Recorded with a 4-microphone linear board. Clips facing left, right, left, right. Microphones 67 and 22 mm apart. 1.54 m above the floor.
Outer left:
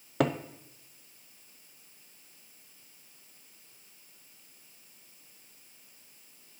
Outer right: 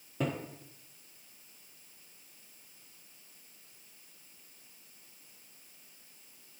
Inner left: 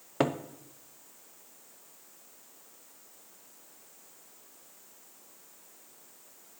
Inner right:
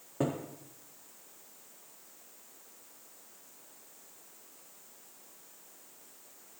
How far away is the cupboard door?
About 0.5 m.